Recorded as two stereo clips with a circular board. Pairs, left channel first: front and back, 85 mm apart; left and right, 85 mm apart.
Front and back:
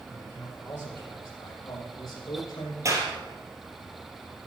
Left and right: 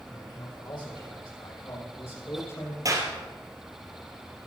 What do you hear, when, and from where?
0.1 s a man speaking: 65° left, 5.5 m; by 2.8 s 40° left, 5 m
2.9 s a clap: 130° right, 3 m